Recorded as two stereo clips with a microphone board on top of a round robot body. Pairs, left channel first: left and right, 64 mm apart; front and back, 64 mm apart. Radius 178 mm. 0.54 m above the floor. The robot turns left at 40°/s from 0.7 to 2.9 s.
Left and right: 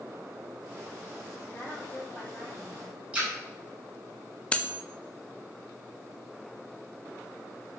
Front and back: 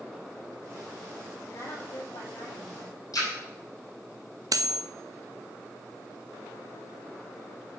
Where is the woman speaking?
35° left, 3.5 m; by 3.0 s 20° right, 3.5 m.